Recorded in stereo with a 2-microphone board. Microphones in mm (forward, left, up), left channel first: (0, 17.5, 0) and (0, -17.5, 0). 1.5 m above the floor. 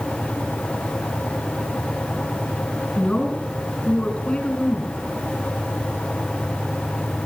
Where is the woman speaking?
30° left (ahead or behind), 7 m.